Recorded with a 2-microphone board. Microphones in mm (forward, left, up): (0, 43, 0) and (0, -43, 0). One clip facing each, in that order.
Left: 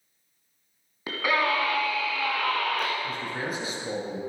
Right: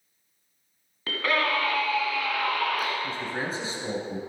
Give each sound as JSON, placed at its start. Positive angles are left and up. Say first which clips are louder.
{"t": 1.1, "sound": "a scream", "louder": "left 1 dB", "side_deg": 15, "distance_m": 1.2}
{"t": 3.0, "sound": "a man speaking", "louder": "even", "side_deg": -30, "distance_m": 3.0}